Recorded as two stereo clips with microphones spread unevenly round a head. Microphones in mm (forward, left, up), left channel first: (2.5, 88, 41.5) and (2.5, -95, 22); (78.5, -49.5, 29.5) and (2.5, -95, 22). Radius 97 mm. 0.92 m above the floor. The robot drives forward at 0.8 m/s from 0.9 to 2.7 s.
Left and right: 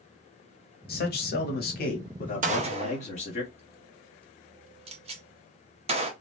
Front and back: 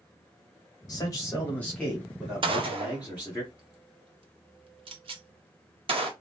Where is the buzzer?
No buzzer in this recording.